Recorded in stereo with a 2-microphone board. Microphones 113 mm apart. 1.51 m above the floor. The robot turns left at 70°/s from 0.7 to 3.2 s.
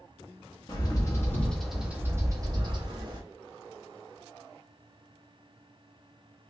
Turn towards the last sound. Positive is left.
turn(degrees=-110)